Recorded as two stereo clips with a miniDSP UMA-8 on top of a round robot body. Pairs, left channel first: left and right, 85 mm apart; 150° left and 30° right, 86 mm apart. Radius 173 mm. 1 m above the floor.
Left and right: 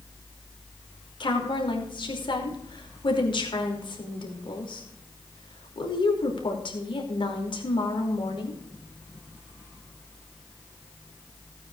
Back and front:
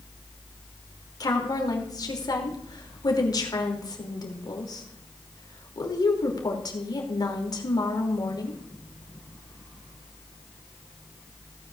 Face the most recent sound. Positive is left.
turn(degrees=110)